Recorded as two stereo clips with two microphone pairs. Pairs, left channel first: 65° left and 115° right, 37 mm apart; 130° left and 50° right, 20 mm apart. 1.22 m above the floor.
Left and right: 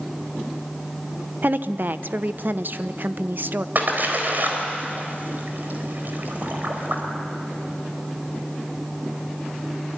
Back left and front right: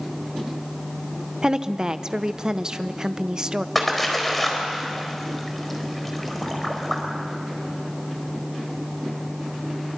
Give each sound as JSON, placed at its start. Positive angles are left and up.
{"t": 1.4, "sound": "a woman speaking", "azimuth_deg": -105, "distance_m": 0.9}
{"t": 3.8, "sound": "a splash", "azimuth_deg": -150, "distance_m": 4.0}